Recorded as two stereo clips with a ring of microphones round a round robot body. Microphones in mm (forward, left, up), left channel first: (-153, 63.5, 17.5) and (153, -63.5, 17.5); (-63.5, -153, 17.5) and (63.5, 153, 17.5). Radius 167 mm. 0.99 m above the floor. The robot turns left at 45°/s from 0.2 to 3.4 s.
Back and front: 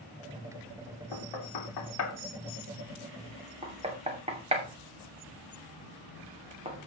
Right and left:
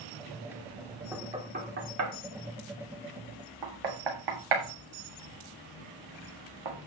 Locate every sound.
1.1 s knocking: 155° left, 2.5 m; by 6.9 s 50° left, 2.5 m